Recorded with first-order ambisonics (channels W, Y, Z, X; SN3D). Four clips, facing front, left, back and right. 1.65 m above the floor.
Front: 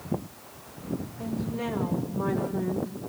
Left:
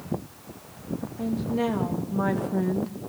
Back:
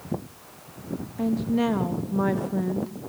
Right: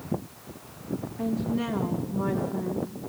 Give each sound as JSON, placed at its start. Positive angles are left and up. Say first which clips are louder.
{"t": 1.2, "sound": "a woman speaking", "louder": "left 2 dB, back 11 dB", "azimuth_deg": 170, "distance_m": 2.5}